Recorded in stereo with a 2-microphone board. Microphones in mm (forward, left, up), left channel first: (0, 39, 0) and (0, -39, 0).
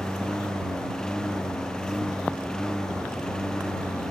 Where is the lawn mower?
5° left (ahead or behind).